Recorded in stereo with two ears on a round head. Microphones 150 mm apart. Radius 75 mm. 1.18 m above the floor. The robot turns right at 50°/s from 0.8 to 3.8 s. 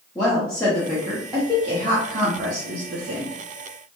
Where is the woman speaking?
165° left, 0.6 m; by 3.3 s 65° right, 0.6 m.